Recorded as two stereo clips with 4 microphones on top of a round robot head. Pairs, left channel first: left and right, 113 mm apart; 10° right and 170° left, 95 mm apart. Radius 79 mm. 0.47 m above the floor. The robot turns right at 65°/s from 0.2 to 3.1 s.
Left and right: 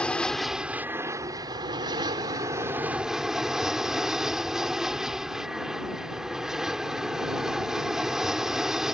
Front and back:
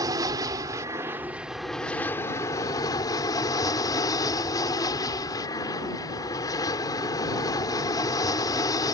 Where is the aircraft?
165° left; by 8.9 s 5° right.